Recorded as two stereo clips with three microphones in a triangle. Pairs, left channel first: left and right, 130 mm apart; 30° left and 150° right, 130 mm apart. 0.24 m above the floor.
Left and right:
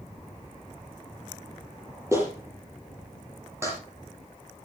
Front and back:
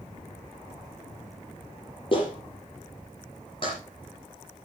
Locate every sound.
2.1 s a clap: 20° right, 6.5 m